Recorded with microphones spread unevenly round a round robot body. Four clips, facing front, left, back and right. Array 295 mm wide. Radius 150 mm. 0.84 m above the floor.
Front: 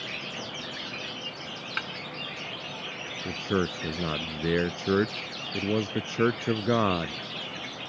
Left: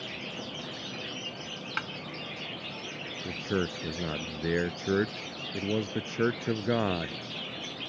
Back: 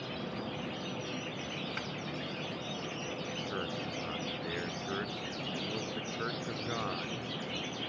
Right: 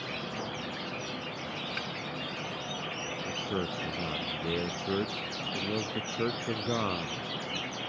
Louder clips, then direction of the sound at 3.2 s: Left 4 dB, front 14 dB; 15° left.